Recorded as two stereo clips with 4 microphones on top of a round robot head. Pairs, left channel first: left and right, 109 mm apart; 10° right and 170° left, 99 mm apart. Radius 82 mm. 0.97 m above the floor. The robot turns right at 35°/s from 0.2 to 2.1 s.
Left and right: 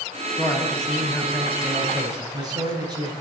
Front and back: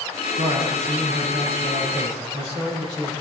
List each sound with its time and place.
0.4 s a man speaking: 155° left, 7 m; by 3.1 s 140° right, 7 m